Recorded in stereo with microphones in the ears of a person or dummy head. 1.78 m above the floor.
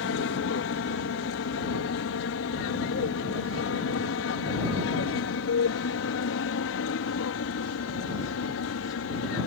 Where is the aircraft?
65° left (ahead or behind); by 9.5 s 70° left (ahead or behind).